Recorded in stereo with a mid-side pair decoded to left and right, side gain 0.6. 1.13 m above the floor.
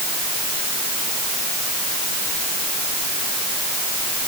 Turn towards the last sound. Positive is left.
No sound to turn to.